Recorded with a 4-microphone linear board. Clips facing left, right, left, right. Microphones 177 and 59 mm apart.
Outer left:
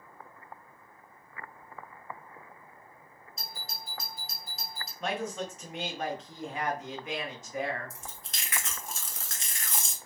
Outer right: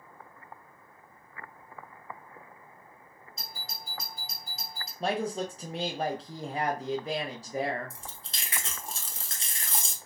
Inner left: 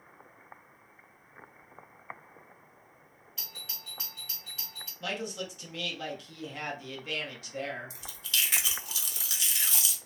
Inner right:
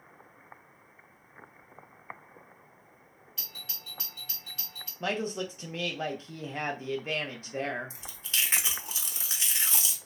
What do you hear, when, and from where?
3.4 s a doorbell: centre (ahead or behind), 1.4 m
5.0 s a woman speaking: 35° right (ahead or behind), 0.6 m
7.9 s chewing: 30° right (ahead or behind), 0.8 m